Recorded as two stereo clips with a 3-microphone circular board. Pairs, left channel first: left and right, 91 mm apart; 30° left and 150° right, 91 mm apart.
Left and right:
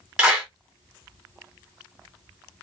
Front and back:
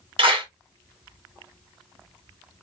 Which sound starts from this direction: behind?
A clap, at 0.2 s.